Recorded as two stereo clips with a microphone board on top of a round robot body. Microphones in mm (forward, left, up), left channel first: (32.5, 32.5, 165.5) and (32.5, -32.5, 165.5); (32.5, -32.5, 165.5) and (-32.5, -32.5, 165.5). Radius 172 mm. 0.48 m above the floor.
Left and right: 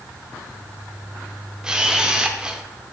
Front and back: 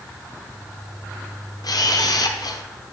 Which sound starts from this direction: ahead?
A camera shutter, at 1.6 s.